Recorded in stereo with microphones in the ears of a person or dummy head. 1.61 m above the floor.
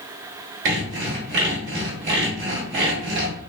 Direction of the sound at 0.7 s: 45° right (ahead or behind).